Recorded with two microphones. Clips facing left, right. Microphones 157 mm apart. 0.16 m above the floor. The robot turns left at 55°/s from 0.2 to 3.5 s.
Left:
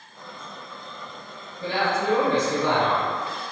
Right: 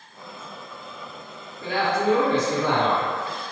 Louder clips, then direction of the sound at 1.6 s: Right 2 dB; 80° left.